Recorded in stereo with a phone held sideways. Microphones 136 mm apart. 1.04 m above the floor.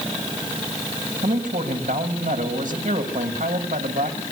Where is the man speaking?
85° right, 5 m.